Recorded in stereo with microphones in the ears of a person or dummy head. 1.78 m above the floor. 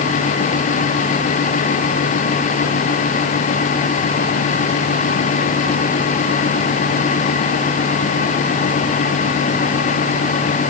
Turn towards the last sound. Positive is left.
No sound to turn to.